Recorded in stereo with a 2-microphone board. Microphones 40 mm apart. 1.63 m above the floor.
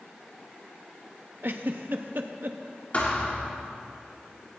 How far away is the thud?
About 2 m.